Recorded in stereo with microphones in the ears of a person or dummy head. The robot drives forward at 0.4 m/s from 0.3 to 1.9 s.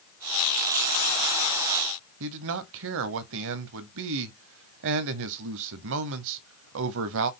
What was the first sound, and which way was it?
A man speaking, 70° right (ahead or behind).